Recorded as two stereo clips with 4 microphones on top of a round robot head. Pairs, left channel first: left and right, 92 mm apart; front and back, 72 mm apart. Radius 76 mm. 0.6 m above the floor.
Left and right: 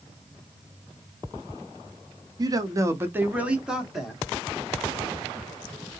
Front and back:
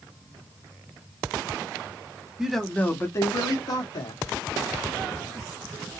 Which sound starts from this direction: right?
A man speaking, at 2.4 s.